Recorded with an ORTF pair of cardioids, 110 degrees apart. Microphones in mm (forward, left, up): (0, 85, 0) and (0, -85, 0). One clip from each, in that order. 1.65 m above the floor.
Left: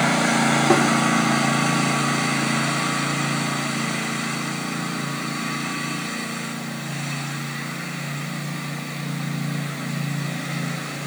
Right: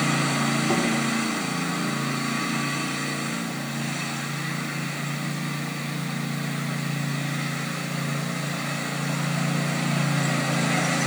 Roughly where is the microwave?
I don't hear a microwave.